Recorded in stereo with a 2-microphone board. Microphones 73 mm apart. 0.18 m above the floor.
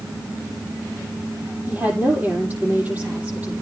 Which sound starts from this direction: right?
A woman speaking, at 1.7 s.